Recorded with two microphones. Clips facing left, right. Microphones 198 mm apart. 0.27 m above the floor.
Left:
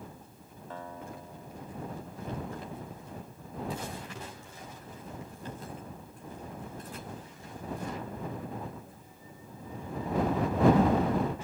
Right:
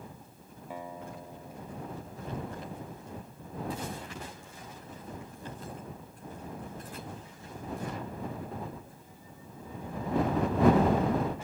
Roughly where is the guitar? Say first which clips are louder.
Right 1 dB; centre.